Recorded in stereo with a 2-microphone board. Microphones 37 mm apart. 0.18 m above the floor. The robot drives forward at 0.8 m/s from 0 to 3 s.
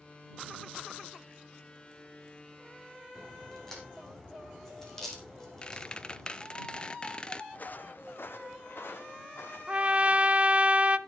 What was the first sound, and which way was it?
A crack, 10° left (ahead or behind).